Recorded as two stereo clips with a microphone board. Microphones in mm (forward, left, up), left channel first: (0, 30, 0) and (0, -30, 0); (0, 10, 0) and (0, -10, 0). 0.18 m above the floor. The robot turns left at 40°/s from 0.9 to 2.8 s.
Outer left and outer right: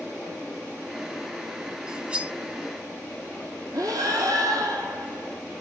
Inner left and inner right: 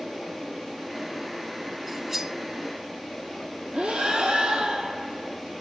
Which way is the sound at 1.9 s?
15° right (ahead or behind).